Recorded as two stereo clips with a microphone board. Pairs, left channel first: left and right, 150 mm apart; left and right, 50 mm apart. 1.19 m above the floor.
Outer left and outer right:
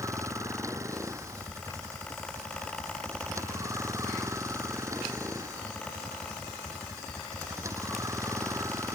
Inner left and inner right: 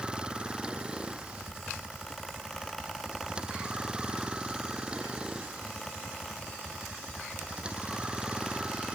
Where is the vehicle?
20° right (ahead or behind).